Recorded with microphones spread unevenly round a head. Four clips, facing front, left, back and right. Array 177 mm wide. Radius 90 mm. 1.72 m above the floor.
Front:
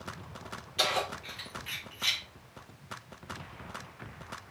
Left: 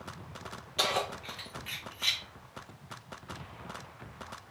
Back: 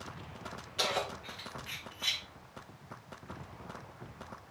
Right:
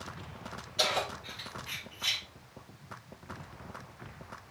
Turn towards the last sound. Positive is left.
turn(degrees=90)